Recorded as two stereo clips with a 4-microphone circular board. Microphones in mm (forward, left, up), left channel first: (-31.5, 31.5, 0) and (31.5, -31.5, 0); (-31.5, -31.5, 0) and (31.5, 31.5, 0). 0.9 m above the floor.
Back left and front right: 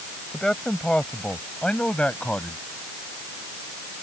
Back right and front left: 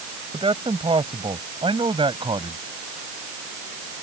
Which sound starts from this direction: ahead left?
A man speaking, at 0.3 s.